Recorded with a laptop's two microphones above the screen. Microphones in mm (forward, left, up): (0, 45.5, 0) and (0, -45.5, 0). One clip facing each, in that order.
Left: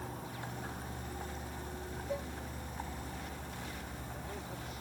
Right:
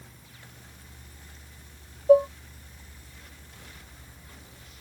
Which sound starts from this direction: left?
A vehicle, at 0.0 s.